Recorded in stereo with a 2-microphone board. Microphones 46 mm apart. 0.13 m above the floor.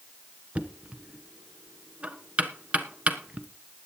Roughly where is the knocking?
Right.